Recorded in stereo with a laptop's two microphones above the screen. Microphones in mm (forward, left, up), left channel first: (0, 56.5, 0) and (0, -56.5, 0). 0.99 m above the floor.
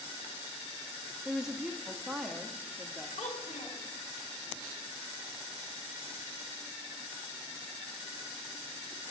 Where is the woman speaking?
5° right (ahead or behind), 0.8 m.